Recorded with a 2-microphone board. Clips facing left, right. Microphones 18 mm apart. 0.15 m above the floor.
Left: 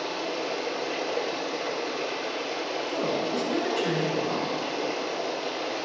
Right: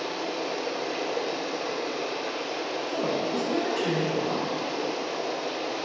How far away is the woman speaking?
About 1.4 m.